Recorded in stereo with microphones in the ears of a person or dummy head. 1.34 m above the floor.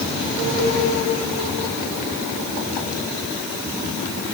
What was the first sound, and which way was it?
Only background noise.